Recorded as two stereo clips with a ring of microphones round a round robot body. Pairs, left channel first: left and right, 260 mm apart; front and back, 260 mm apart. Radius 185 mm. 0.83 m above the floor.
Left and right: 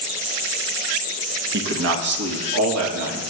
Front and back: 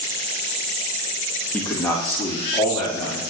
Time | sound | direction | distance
1.5 | a man speaking | 80° right | 0.8 m